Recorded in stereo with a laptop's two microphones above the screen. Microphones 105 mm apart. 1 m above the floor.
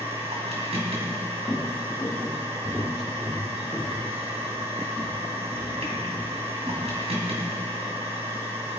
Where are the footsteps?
Centre (ahead or behind), 3 m; by 7.0 s 20° right (ahead or behind), 5.5 m.